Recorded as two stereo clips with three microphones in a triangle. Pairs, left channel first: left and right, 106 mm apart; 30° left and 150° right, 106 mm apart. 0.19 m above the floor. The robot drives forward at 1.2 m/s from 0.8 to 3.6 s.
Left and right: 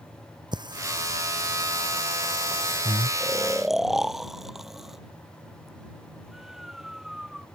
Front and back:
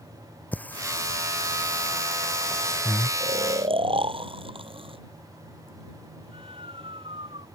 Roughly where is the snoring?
Behind.